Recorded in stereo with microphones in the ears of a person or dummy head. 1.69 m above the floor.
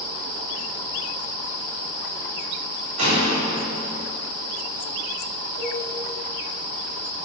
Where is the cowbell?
30° right (ahead or behind), 1.7 m.